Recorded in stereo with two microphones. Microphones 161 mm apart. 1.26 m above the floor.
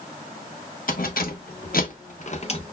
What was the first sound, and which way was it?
Keys jangling, 65° left (ahead or behind).